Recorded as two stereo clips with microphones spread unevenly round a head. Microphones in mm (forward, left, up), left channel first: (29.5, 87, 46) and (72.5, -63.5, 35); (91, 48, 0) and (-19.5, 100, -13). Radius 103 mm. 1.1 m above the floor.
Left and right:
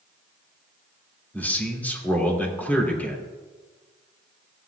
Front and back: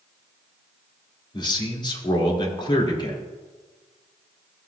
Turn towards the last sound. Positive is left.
turn(degrees=25)